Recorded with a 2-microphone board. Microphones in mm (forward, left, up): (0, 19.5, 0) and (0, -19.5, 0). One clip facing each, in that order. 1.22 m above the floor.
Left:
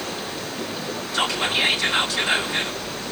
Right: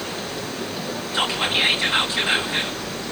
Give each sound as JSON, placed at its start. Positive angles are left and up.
{"t": 1.1, "sound": "whispering", "side_deg": -30, "distance_m": 3.0}